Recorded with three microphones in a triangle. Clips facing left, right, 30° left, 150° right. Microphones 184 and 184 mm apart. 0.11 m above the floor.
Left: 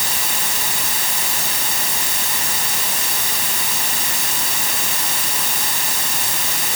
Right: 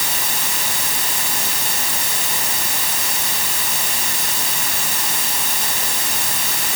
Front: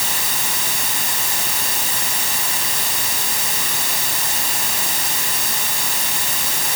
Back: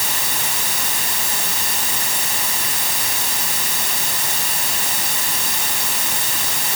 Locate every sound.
Only background noise.